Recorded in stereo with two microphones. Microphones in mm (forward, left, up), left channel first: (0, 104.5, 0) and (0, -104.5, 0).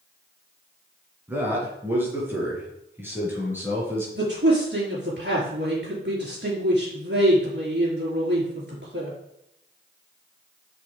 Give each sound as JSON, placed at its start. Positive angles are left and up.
{"t": 1.3, "sound": "a man speaking", "side_deg": -10, "distance_m": 3.5}
{"t": 4.2, "sound": "a man speaking", "side_deg": -55, "distance_m": 5.0}